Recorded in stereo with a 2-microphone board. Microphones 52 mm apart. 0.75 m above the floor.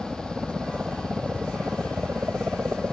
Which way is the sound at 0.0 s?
25° right (ahead or behind).